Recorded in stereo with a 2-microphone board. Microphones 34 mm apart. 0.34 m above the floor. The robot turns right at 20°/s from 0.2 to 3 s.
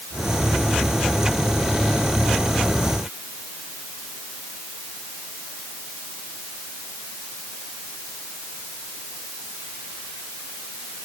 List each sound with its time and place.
Only background noise.